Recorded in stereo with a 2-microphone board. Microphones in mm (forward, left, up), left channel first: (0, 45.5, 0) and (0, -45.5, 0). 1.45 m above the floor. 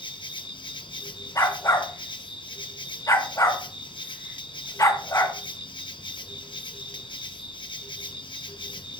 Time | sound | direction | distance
0.0 | an insect | 65° left (ahead or behind) | 0.8 m
1.4 | a dog barking | 35° left (ahead or behind) | 1.9 m